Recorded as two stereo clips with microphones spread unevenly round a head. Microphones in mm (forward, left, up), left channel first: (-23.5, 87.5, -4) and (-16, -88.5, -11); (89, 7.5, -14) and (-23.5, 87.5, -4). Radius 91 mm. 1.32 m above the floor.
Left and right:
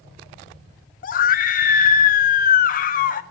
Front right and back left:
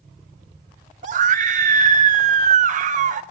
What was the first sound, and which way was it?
A scream, 125° left.